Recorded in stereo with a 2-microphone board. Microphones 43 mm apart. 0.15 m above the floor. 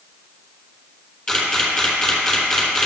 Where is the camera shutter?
20° left (ahead or behind), 3.5 m.